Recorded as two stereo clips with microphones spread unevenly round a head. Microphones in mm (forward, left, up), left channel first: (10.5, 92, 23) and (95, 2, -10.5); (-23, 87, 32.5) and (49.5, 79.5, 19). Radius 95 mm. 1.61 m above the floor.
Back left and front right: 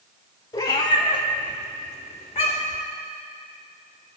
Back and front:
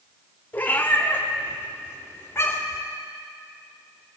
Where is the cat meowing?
145° left, 1.4 m; by 2.8 s 135° left, 2.5 m.